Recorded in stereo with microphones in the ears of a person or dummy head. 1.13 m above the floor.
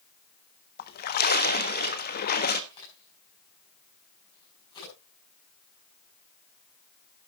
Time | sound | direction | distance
0.8 | a splash | 45° left (ahead or behind) | 1.3 m
2.7 | a crack | 25° left (ahead or behind) | 7 m